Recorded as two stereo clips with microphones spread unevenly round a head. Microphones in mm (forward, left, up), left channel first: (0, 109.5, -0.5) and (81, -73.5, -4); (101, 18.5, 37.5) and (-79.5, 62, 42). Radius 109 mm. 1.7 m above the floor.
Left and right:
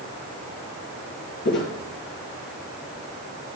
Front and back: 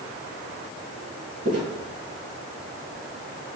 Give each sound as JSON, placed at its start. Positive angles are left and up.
{"t": 1.4, "sound": "footsteps", "azimuth_deg": 130, "distance_m": 3.0}